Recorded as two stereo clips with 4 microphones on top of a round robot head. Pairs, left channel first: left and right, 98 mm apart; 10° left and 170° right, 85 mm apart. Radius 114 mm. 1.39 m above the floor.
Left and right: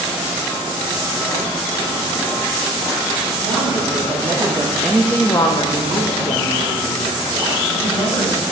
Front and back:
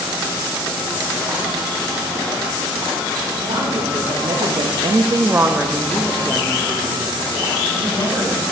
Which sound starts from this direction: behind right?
A woman speaking, at 3.4 s.